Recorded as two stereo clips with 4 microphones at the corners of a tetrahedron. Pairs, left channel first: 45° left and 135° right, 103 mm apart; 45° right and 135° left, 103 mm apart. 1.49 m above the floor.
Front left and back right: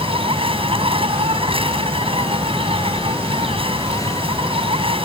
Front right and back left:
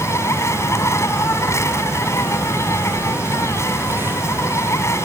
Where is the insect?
110° right.